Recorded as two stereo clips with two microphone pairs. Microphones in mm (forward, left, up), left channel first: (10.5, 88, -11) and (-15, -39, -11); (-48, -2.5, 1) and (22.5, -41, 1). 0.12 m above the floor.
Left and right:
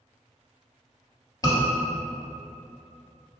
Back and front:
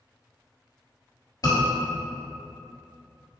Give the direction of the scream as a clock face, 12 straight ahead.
8 o'clock.